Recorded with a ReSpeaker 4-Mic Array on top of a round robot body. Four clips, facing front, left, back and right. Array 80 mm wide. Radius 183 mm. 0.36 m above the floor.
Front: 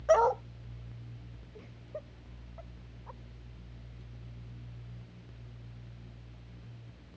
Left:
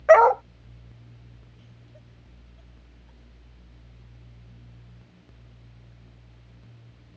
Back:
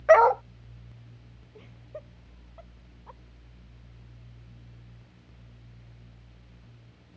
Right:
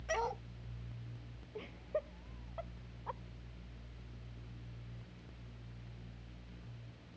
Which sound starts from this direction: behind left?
A dog barking, at 0.1 s.